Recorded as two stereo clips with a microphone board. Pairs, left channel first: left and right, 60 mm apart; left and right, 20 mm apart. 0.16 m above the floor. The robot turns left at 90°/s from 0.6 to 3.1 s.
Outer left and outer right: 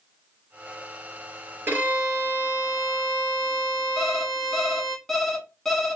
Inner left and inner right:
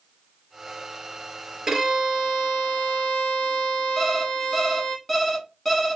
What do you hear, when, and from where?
1.7 s a violin: 140° right, 1.1 m; by 5.0 s 90° left, 1.1 m
4.0 s an alarm clock: 5° left (ahead or behind), 1.0 m